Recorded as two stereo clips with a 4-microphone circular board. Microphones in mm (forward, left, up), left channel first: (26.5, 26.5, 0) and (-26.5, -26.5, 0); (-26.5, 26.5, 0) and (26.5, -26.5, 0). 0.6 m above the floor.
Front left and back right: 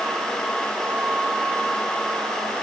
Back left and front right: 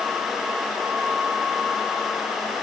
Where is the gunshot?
No gunshot in this recording.